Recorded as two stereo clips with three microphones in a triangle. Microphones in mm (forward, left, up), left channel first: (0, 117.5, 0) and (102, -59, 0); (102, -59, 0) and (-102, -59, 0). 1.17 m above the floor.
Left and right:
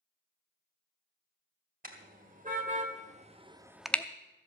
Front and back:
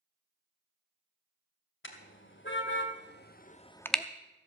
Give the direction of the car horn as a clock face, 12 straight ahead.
12 o'clock.